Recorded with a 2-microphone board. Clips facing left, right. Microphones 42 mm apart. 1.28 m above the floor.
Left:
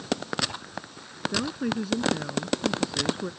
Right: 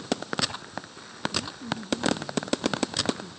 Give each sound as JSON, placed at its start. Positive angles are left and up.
{"t": 1.3, "sound": "a woman speaking", "side_deg": 85}